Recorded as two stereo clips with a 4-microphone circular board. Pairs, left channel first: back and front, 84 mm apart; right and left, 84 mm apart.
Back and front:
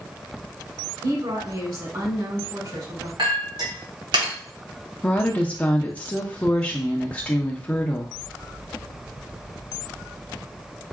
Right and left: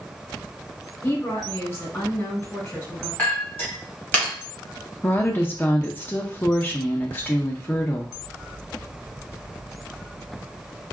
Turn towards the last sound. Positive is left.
turn(degrees=-125)